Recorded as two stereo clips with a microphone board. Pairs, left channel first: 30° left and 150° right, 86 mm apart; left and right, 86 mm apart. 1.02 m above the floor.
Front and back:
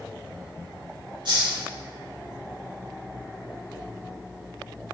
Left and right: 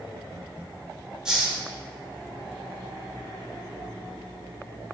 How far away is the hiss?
About 3 m.